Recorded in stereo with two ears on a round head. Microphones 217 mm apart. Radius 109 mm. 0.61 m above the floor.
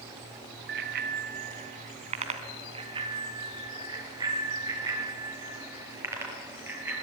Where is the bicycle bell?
50° right (ahead or behind), 2.5 m; by 6.9 s 10° right (ahead or behind), 8.5 m.